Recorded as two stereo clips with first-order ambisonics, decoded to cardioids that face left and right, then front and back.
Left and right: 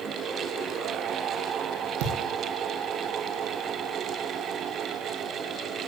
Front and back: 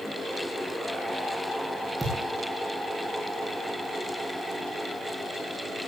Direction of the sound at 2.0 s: 95° right.